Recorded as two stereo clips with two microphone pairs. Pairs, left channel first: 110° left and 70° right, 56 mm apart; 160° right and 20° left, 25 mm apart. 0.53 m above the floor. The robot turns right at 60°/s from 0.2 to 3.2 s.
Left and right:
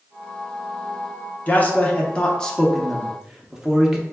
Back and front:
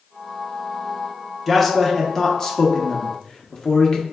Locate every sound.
1.5 s a man speaking: 110° left, 0.7 m; by 4.0 s 145° right, 0.7 m